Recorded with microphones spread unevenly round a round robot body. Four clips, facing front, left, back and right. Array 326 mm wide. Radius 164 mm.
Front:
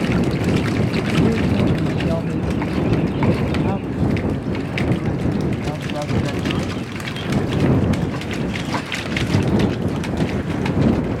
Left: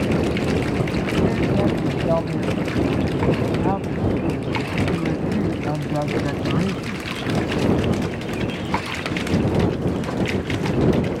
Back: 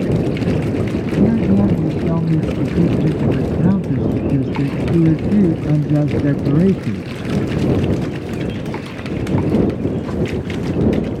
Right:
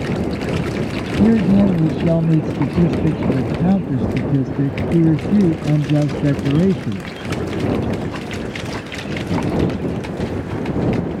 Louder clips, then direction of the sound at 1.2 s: Right 8 dB, back 5 dB; 115° right.